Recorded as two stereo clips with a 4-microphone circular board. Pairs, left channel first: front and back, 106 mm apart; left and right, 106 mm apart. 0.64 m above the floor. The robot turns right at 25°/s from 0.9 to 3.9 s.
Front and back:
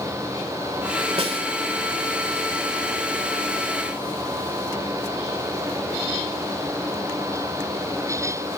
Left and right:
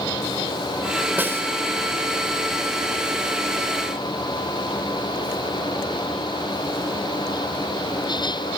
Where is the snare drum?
160° right, 2 m; by 1.5 s 155° right, 2 m.